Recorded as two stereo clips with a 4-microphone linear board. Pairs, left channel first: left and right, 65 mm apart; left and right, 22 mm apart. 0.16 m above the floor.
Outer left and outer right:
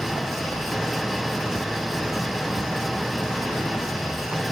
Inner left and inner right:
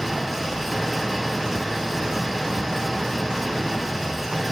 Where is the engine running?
Centre (ahead or behind).